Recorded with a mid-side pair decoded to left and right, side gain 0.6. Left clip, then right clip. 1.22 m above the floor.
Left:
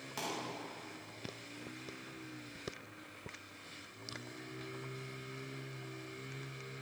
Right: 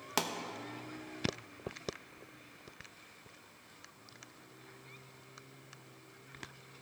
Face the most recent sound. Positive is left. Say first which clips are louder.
# right 6 dB
turn(degrees=-60)